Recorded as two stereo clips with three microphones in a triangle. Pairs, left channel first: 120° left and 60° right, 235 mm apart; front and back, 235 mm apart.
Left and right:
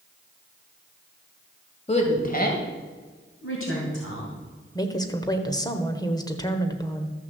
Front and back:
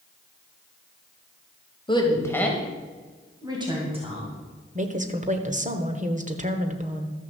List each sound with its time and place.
1.9 s a woman speaking: 65° left, 2 m; by 4.3 s 120° left, 3 m
4.8 s a woman speaking: straight behind, 1.2 m